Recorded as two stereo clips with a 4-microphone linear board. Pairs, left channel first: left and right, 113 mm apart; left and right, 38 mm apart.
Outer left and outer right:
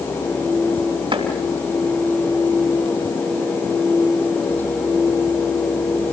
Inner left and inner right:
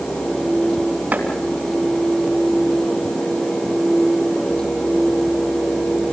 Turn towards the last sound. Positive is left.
turn(degrees=-55)  # may be behind; listen again after turning